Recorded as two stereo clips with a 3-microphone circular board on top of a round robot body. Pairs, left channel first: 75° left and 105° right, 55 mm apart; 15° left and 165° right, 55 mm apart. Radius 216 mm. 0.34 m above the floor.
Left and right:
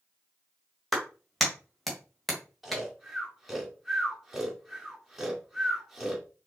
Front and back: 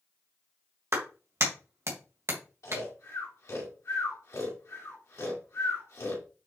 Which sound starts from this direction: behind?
A clap, at 0.9 s.